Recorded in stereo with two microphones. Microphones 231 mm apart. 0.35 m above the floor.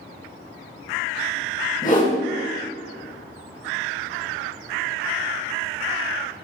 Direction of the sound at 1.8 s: 35° left (ahead or behind).